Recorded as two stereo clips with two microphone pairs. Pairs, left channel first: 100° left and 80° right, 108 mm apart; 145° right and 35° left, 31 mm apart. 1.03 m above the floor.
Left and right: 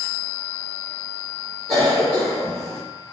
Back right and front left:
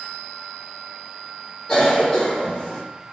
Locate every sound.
1.7 s a cough: 80° right, 1.2 m